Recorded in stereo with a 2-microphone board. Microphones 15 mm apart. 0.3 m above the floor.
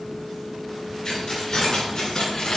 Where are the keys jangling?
30° left (ahead or behind), 3 m; by 2.6 s 35° left (ahead or behind), 1.6 m.